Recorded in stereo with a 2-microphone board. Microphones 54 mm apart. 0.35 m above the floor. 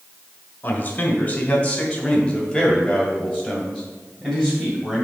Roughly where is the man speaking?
Left.